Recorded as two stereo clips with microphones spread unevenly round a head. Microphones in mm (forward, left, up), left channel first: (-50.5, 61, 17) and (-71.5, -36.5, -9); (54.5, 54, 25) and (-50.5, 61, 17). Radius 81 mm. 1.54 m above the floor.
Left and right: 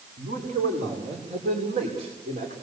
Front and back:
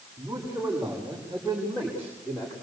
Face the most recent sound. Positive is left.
turn(degrees=-70)